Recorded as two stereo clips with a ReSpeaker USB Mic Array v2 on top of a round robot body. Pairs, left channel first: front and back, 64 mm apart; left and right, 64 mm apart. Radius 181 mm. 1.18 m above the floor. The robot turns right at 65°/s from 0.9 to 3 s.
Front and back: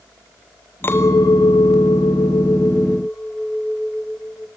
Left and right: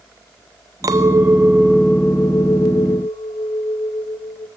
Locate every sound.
0.8 s a clink: 55° right, 0.8 m; by 4.5 s 80° left, 0.8 m